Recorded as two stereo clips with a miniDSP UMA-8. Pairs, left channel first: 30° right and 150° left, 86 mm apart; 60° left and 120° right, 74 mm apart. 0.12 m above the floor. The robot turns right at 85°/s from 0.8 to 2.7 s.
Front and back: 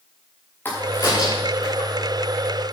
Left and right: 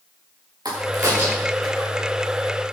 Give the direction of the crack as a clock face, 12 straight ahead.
3 o'clock.